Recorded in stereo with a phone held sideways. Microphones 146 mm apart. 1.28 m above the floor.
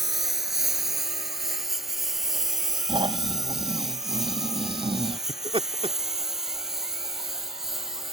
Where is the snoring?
35° right (ahead or behind).